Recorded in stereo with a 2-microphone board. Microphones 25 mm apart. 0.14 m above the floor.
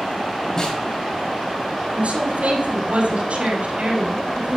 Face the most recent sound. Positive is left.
turn(degrees=-60)  # may be behind; listen again after turning